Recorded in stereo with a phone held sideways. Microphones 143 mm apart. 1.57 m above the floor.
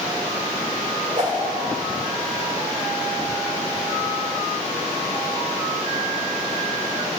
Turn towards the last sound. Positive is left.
turn(degrees=-50)  # may be behind; listen again after turning